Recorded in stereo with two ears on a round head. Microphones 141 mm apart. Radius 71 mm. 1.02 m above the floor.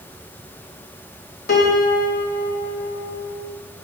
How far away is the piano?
About 1.1 m.